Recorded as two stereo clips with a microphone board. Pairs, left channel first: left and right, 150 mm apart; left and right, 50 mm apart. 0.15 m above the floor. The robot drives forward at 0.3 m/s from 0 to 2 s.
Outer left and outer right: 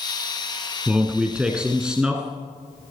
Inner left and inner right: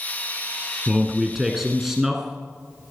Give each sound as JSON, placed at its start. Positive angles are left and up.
{"t": 0.9, "sound": "a man speaking", "side_deg": -5, "distance_m": 1.1}